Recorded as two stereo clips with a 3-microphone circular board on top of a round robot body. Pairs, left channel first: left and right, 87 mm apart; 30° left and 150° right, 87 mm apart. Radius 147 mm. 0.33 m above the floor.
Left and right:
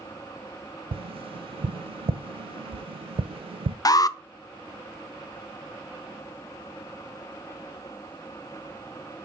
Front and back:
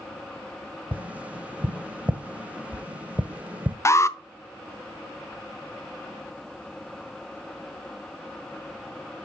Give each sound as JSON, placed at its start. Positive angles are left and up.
{"t": 0.9, "sound": "tapping", "azimuth_deg": -75, "distance_m": 0.5}
{"t": 3.9, "sound": "an alarm", "azimuth_deg": 70, "distance_m": 0.7}